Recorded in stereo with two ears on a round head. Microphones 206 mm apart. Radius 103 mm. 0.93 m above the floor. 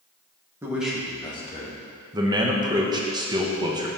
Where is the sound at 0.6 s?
10° right (ahead or behind), 1.6 m; by 1.8 s 40° left (ahead or behind), 1.6 m.